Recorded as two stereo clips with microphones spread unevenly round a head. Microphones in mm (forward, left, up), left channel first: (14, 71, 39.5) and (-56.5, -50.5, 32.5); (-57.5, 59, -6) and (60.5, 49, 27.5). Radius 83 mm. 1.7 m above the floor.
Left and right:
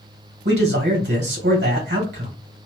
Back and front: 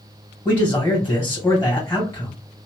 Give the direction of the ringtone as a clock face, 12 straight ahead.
No ringtone in this recording.